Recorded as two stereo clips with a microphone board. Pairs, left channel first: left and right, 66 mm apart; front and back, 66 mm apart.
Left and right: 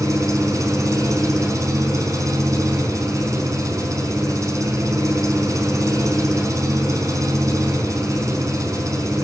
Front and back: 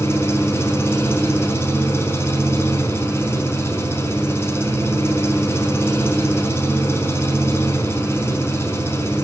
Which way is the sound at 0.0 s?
50° right.